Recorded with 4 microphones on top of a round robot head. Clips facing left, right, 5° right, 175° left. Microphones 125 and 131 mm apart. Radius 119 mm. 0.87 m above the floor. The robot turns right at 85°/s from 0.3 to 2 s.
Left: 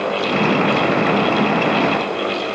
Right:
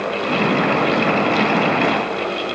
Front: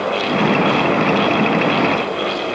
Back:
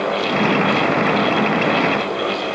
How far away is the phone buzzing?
No phone buzzing in this recording.